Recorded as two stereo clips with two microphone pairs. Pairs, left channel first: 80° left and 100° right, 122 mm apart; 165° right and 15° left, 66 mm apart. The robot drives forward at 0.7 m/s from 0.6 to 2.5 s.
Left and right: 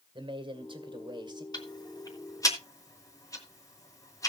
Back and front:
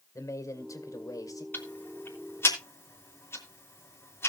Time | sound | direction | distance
0.1 | a man speaking | 140° right | 2 m
1.5 | ticking | 135° left | 3 m